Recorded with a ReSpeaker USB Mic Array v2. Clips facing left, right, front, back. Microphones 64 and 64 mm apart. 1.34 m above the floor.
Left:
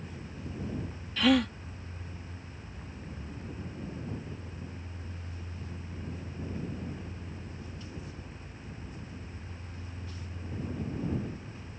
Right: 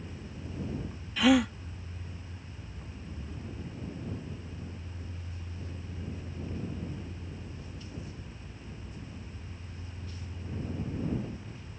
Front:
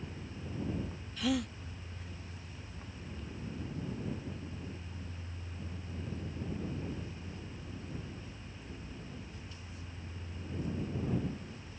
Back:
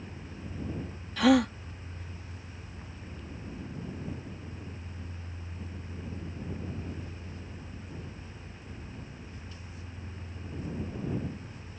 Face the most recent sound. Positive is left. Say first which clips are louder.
# right 1 dB, back 11 dB
turn(degrees=-170)